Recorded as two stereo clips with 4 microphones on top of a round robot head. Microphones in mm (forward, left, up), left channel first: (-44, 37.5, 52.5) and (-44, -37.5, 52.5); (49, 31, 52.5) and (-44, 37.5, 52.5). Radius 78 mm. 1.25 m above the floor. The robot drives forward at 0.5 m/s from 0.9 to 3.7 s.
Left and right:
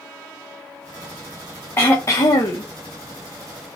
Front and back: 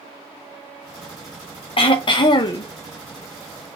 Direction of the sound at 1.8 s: 25° left.